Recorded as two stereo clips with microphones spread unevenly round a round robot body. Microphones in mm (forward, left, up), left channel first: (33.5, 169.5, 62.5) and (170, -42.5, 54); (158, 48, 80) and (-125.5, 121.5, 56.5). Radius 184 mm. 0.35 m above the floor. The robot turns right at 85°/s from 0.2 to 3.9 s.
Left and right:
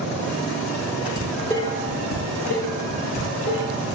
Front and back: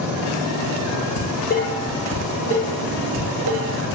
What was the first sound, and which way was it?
Dishes clattering, 15° left.